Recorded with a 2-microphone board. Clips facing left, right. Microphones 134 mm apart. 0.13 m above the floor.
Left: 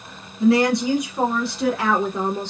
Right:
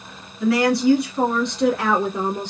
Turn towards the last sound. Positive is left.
turn(degrees=-15)  # may be behind; listen again after turning